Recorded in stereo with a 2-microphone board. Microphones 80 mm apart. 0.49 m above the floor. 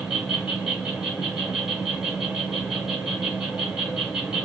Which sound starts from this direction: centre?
An insect, at 0.0 s.